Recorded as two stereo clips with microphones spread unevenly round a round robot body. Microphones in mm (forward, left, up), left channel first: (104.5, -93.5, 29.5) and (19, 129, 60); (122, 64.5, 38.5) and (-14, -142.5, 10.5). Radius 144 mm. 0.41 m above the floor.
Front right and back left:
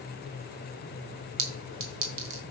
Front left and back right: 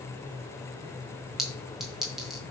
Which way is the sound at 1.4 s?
150° left.